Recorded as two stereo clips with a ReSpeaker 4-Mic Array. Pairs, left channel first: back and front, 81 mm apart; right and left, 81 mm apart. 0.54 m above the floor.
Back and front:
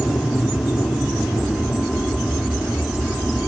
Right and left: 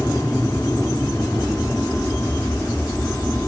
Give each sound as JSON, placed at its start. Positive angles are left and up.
{"t": 0.0, "sound": "an aircraft", "azimuth_deg": 170}